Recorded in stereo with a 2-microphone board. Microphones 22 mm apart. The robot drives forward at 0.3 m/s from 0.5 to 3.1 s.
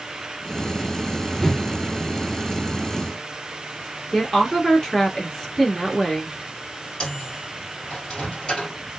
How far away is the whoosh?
About 0.8 m.